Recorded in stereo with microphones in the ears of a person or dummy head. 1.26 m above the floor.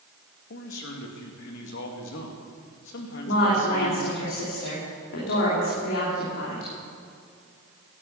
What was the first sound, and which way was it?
A man speaking, 60° left (ahead or behind).